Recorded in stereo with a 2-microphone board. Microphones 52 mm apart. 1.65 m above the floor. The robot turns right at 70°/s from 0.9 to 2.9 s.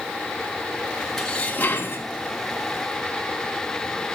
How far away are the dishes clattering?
About 1.6 m.